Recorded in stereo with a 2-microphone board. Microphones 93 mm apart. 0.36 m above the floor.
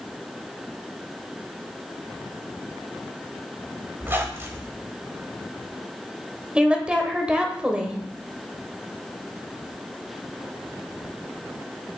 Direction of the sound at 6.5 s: 10° right (ahead or behind).